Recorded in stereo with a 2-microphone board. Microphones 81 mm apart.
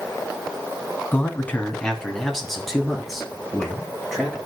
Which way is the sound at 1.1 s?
25° left (ahead or behind).